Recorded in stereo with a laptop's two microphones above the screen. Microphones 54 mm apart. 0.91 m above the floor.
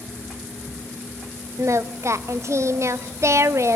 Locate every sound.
1.6 s singing: 60° right (ahead or behind), 0.7 m